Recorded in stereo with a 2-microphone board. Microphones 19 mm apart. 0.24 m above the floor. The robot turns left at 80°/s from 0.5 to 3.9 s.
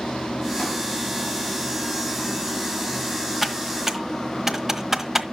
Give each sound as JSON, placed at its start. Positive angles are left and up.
{"t": 0.0, "sound": "running water", "azimuth_deg": 75, "distance_m": 4.0}
{"t": 3.4, "sound": "typing on a keyboard", "side_deg": -10, "distance_m": 1.3}